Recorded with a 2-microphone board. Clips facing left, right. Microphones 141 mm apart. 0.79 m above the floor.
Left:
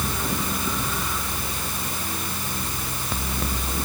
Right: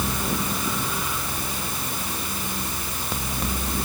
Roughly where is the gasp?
I don't hear a gasp.